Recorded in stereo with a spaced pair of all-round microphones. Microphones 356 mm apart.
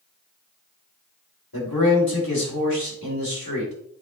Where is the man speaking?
75° left (ahead or behind), 4 m.